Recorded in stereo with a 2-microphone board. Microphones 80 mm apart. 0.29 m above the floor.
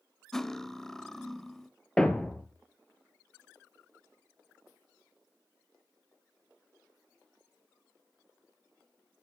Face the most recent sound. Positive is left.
turn(degrees=10)  # may be behind; listen again after turning